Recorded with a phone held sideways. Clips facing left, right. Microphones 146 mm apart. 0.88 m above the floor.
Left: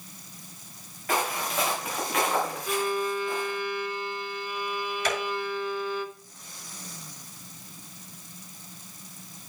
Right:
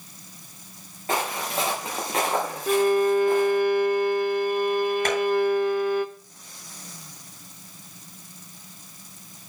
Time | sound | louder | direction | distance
1.1 | footsteps | right 1 dB | 25° right (ahead or behind) | 5 m
2.7 | a violin | right 13 dB | 55° right (ahead or behind) | 0.8 m
5.0 | tapping | right 4 dB | 55° right (ahead or behind) | 8 m